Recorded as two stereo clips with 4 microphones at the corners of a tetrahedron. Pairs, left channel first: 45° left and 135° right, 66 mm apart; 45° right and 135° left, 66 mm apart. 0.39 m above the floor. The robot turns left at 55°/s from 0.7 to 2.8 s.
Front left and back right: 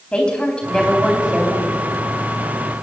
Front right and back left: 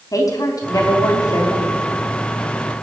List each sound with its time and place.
0.1 s a woman speaking: 30° right, 3.5 m; by 1.7 s 85° right, 3.5 m